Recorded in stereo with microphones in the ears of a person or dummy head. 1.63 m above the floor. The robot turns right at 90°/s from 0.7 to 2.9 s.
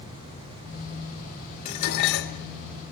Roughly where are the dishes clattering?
Ahead left.